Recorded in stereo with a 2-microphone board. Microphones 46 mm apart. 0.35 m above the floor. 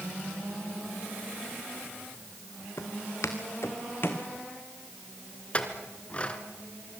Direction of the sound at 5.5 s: 25° left (ahead or behind).